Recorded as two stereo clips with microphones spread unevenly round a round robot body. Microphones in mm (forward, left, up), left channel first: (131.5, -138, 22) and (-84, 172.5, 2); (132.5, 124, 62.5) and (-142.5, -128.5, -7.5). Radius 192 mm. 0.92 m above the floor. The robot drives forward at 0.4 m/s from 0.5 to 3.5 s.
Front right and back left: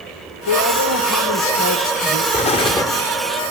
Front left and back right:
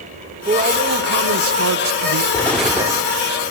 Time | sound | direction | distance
0.5 | a man speaking | 75° right | 0.9 m
2.3 | an explosion | 10° right | 0.6 m